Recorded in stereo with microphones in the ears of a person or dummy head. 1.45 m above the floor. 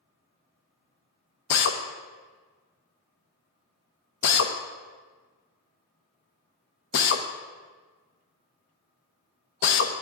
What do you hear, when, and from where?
1.5 s a drill: 55° left (ahead or behind), 0.8 m